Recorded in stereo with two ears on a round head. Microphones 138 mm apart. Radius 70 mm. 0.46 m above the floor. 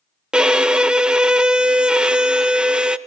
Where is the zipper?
I don't hear a zipper.